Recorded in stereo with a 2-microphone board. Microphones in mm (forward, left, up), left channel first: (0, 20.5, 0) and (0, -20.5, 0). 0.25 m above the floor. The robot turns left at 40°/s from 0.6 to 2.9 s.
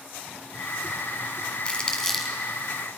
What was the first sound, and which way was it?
Crumpling, 25° left (ahead or behind).